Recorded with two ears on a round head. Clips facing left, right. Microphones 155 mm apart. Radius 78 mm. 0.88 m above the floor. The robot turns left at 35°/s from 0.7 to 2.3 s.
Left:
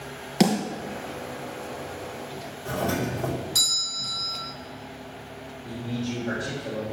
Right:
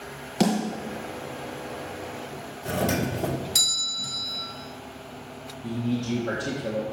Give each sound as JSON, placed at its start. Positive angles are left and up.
{"t": 0.4, "sound": "a snare drum", "side_deg": 10, "distance_m": 3.0}
{"t": 2.6, "sound": "a doorbell", "side_deg": -25, "distance_m": 0.8}
{"t": 5.6, "sound": "a man speaking", "side_deg": -55, "distance_m": 1.9}